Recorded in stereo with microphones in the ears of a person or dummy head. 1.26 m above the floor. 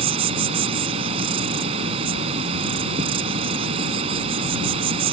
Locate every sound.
0.0 s an insect: 30° right (ahead or behind)